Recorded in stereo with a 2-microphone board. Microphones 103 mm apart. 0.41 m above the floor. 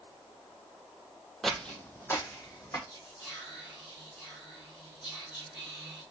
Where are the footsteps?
Centre (ahead or behind), 0.5 m; by 2.8 s 30° left (ahead or behind), 1.3 m.